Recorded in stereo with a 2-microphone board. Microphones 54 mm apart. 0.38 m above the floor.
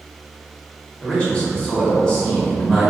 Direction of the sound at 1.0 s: 15° left (ahead or behind).